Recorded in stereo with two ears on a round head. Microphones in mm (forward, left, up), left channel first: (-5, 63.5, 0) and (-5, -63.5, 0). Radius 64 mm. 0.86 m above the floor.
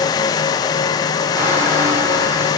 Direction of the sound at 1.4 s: 15° right (ahead or behind).